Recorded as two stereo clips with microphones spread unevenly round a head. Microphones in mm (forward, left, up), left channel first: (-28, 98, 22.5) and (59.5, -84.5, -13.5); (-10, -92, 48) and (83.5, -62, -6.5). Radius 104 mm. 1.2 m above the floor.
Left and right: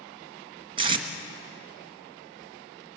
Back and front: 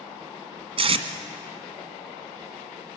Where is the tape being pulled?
Straight ahead, 1.5 m.